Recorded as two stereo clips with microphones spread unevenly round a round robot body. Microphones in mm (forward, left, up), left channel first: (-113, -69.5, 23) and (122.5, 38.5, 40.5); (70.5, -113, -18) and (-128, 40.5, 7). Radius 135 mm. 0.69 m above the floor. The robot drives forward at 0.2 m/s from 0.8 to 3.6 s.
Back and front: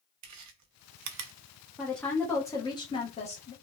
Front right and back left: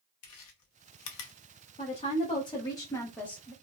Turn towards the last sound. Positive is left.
turn(degrees=-115)